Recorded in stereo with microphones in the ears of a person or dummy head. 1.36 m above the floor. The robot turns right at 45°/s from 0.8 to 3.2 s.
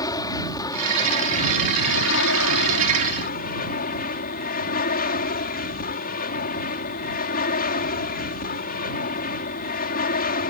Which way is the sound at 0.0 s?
25° left.